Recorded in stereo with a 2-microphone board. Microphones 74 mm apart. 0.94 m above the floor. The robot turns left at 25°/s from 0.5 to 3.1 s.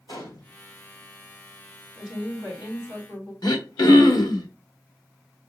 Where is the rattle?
No rattle in this recording.